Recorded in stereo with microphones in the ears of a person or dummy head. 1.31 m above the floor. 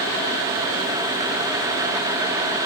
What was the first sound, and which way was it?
Only background noise.